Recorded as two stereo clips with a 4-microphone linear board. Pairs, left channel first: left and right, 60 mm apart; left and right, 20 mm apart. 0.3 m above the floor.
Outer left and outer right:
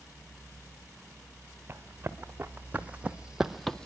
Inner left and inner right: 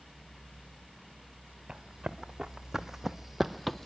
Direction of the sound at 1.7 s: 35° right (ahead or behind).